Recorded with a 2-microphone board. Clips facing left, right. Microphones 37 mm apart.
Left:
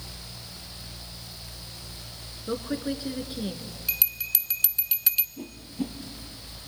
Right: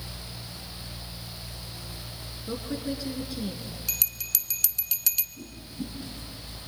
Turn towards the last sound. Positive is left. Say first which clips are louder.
# left 4 dB
turn(degrees=50)  # may be behind; listen again after turning